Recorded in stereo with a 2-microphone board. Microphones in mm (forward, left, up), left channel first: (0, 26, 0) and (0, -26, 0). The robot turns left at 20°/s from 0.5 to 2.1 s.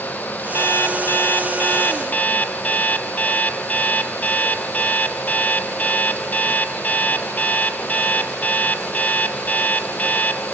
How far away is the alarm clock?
About 1.5 m.